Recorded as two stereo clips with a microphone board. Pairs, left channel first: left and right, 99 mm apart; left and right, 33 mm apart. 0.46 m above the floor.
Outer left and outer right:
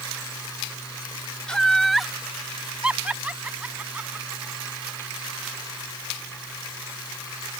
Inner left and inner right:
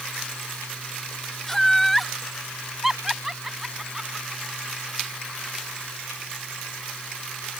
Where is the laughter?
10° left (ahead or behind); by 5.5 s 20° right (ahead or behind).